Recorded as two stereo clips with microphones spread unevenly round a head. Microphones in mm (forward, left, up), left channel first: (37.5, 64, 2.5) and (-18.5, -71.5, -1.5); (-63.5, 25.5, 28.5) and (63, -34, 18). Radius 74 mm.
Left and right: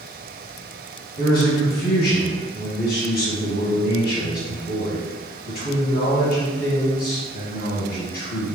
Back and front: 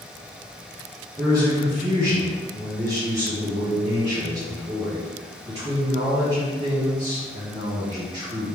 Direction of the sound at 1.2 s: 50° left.